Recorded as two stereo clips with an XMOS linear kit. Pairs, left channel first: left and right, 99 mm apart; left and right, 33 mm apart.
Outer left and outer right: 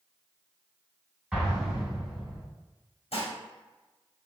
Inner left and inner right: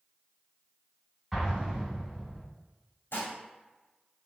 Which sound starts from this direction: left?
Dishes clattering, at 3.1 s.